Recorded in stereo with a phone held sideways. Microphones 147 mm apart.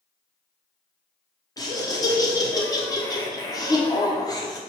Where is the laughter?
25° left (ahead or behind), 0.9 m.